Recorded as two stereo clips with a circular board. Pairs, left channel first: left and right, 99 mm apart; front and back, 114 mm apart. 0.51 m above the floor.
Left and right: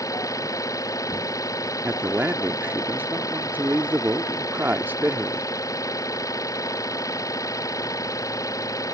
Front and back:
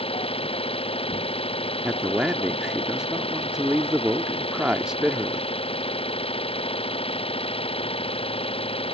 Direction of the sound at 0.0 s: 35° left.